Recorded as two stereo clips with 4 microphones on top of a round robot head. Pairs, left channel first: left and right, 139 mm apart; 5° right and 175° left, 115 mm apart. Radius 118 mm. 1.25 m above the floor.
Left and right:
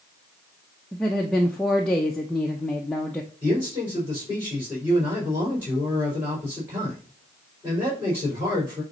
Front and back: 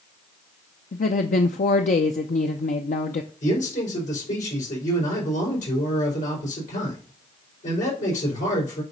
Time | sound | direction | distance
0.9 | a woman speaking | 5° left | 0.6 m
3.4 | a man speaking | 15° right | 4.5 m